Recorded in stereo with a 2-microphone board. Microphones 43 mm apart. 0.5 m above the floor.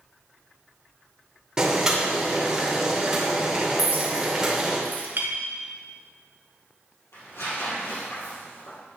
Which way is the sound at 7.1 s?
80° left.